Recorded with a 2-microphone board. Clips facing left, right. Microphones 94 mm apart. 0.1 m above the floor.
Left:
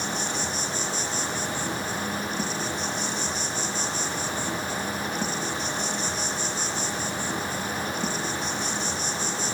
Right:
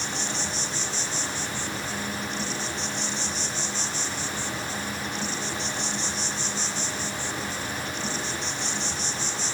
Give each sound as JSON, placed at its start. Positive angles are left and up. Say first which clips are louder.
{"t": 0.0, "sound": "an insect", "louder": "left 2 dB", "side_deg": 45, "distance_m": 6.0}